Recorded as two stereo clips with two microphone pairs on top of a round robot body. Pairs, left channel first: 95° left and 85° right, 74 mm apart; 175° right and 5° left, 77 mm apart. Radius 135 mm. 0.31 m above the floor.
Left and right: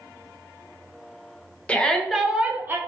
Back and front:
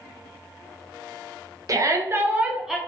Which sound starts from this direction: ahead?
A shout, at 1.7 s.